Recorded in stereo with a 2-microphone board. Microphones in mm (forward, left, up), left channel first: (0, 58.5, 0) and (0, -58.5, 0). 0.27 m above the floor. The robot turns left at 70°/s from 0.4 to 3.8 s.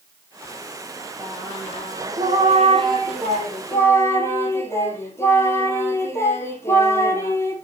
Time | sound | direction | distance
1.2 | singing | 20° right | 3.5 m